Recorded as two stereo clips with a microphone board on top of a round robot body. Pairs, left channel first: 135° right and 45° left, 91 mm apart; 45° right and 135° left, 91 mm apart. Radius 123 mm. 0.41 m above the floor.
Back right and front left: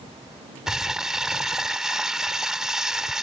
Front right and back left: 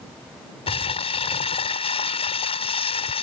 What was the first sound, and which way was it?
Crumpling, 40° right.